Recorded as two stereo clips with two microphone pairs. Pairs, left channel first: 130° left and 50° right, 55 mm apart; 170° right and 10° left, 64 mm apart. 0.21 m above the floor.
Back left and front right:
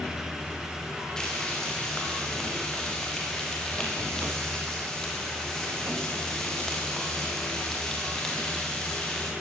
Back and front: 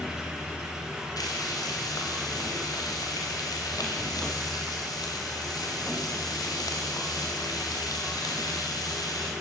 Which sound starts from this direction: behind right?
Frying, at 1.2 s.